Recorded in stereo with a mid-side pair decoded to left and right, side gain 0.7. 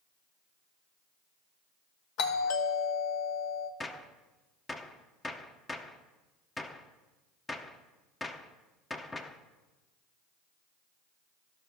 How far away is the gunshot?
About 0.8 m.